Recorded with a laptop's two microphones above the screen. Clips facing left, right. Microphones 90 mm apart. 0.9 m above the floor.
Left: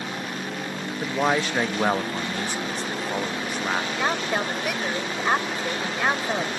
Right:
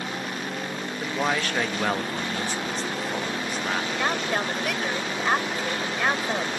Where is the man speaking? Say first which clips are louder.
Left 3 dB; 15° left (ahead or behind).